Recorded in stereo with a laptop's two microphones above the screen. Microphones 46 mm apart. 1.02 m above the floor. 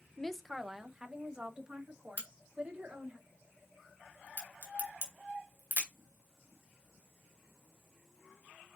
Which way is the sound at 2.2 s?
40° right (ahead or behind).